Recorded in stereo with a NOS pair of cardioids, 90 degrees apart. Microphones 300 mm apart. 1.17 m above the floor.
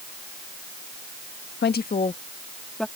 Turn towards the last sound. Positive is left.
turn(degrees=0)